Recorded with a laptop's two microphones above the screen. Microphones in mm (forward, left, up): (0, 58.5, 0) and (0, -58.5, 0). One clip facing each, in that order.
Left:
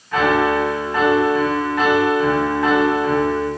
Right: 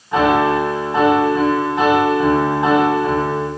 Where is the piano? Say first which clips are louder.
Right 2 dB; 25° right (ahead or behind), 6.5 m.